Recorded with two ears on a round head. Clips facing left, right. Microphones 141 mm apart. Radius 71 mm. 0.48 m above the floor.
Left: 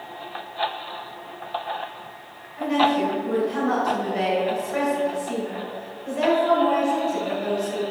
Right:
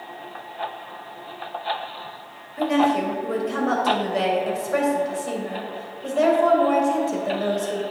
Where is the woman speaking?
60° right (ahead or behind), 3 m.